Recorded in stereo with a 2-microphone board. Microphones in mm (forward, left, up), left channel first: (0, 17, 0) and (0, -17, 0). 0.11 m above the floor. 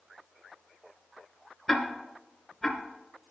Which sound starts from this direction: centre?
Ticking, at 1.7 s.